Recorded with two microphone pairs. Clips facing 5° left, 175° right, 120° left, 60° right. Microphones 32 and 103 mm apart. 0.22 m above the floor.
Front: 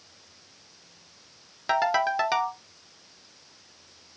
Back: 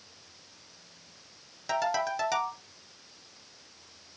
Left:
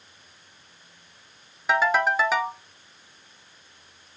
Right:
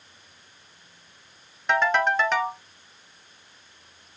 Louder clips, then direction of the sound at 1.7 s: Front 5 dB, even; 35° left.